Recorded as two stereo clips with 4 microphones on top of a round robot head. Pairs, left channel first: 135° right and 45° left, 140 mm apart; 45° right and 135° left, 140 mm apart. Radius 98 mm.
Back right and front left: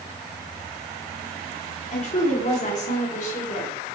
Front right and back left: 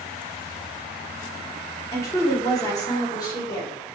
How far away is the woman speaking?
About 2.0 m.